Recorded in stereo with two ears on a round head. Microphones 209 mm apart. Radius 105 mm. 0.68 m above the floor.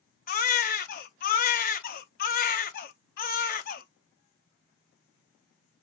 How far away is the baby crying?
About 0.6 m.